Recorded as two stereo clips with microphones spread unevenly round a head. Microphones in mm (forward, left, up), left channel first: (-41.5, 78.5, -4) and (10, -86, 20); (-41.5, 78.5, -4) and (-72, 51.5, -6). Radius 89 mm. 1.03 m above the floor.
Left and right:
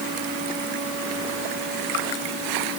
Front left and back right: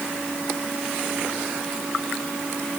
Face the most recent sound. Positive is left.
No sound to turn to.